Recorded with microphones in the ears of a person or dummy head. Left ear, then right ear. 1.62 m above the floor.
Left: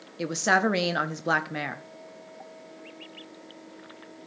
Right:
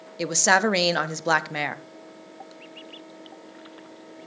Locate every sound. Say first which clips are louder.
0.2 s a woman speaking: right 3 dB; 20° right (ahead or behind), 0.5 m